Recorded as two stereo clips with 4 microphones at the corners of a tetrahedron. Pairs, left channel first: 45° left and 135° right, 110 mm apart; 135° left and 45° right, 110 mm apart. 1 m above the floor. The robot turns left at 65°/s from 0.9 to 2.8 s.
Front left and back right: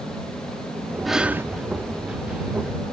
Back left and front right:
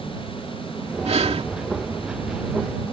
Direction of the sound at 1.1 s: 45° right.